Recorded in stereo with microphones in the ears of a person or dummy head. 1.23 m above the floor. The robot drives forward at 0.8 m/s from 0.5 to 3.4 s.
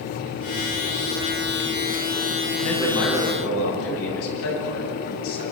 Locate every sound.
2.6 s a man speaking: 75° left (ahead or behind), 10 m